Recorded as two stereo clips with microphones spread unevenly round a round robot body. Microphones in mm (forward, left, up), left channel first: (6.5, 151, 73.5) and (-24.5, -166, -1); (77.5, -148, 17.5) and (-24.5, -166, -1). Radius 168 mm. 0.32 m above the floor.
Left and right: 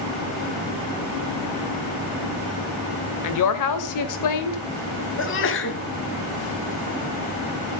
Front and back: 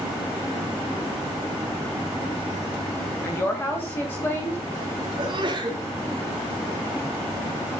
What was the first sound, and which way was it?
A woman speaking, 90° left.